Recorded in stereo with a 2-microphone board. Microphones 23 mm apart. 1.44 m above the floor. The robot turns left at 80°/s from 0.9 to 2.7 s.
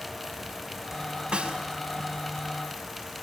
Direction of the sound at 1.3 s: 45° right (ahead or behind).